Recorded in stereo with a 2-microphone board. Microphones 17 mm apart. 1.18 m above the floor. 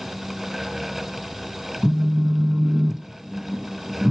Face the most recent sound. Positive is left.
turn(degrees=-20)  # may be behind; listen again after turning